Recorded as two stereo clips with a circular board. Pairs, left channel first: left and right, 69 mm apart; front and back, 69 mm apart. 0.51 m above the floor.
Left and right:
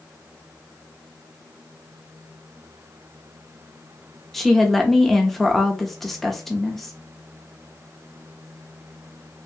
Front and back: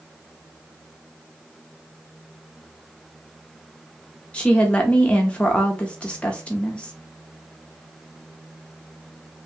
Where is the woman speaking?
10° left, 0.6 m.